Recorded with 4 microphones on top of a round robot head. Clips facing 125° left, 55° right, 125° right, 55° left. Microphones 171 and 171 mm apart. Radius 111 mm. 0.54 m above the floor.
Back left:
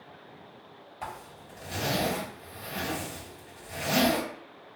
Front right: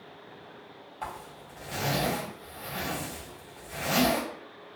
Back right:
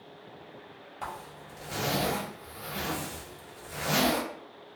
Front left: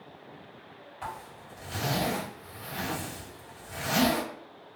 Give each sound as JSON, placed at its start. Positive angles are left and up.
{"t": 1.0, "sound": "a zipper", "azimuth_deg": -155, "distance_m": 1.4}